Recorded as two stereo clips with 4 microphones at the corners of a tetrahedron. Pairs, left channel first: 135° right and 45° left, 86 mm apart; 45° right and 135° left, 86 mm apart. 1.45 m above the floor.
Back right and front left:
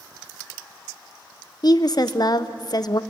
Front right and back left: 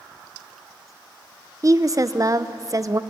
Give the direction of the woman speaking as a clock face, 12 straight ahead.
6 o'clock.